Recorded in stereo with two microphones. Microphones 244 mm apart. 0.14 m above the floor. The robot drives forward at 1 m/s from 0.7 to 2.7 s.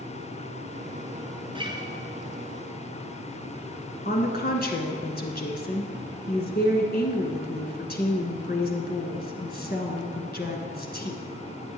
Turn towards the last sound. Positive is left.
turn(degrees=40)  # may be behind; listen again after turning